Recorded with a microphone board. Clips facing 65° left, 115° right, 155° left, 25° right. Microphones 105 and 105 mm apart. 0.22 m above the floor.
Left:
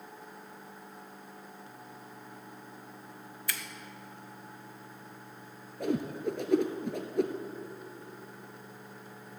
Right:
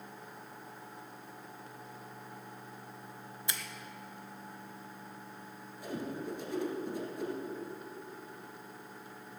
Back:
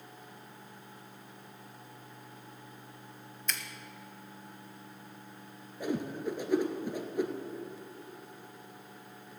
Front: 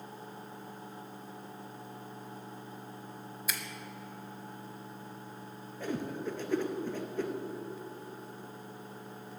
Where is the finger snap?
95° right, 1.0 m.